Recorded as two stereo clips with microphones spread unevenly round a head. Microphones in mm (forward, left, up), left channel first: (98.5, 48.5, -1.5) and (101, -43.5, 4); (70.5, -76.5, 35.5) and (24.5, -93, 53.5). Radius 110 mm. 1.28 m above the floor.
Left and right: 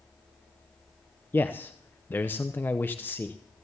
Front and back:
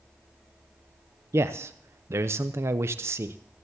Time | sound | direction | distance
1.3 | a man speaking | 155° left | 0.5 m